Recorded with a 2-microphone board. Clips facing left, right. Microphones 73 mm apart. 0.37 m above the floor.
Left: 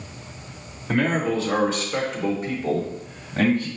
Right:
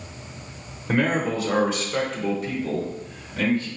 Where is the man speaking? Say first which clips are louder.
Even; 25° right (ahead or behind), 1.1 m; by 3.7 s 45° left (ahead or behind), 1.3 m.